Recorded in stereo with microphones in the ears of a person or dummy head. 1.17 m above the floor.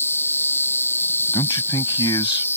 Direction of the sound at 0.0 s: 10° left (ahead or behind).